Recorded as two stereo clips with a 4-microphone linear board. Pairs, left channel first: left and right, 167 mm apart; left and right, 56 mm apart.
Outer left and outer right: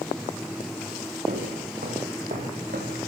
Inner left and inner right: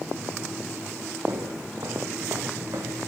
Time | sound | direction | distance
1.3 | footsteps | 65° right (ahead or behind) | 3 m